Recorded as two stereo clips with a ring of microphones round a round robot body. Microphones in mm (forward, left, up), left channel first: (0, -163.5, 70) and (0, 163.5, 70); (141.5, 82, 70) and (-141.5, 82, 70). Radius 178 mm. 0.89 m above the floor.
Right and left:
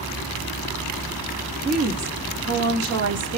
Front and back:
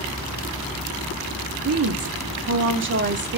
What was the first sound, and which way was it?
A woman speaking, 150° left.